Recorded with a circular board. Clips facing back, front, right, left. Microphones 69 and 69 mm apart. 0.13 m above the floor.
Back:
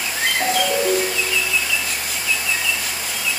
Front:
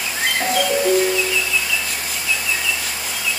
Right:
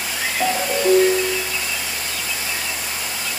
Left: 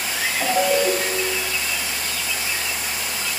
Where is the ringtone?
80° right, 1.8 m.